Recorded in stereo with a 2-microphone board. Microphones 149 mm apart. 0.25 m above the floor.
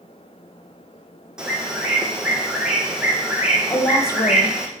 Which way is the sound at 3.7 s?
25° left (ahead or behind).